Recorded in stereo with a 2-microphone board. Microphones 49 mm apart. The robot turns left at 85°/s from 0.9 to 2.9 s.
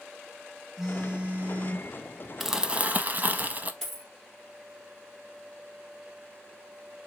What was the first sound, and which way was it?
A phone buzzing, 5° right.